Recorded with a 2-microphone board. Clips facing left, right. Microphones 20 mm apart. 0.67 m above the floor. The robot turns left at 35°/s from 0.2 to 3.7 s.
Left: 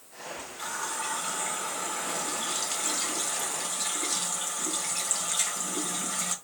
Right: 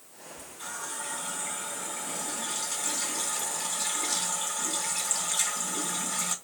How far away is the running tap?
About 2.5 m.